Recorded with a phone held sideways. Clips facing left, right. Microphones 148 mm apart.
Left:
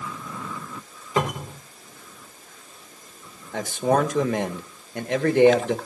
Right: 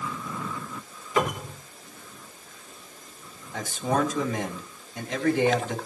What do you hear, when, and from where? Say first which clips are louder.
1.2 s a cupboard door: left 1 dB; 30° left (ahead or behind), 3 m
3.5 s a man speaking: left 5 dB; 65° left (ahead or behind), 1.7 m